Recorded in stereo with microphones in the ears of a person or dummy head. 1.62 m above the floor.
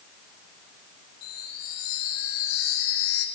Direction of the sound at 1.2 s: 85° left.